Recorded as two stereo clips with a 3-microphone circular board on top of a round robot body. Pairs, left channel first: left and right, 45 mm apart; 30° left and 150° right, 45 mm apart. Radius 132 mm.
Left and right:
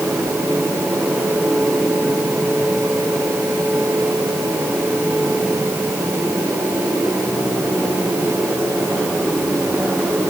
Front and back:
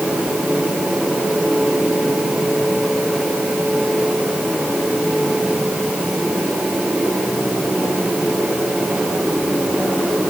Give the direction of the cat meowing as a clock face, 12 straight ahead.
No cat meowing in this recording.